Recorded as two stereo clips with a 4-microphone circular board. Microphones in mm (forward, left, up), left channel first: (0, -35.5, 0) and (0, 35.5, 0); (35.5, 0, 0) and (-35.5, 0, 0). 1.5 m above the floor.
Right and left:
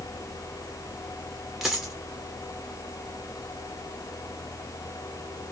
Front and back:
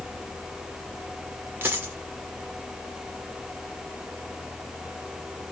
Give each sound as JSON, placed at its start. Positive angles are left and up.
{"t": 1.6, "sound": "a dropped coin", "azimuth_deg": 170, "distance_m": 1.2}